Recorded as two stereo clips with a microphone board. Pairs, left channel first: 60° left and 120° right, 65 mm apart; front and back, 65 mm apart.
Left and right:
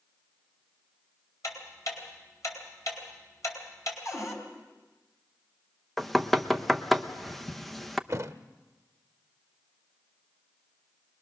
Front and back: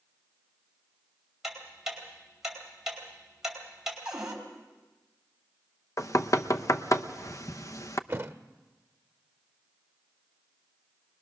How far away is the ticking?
About 4 m.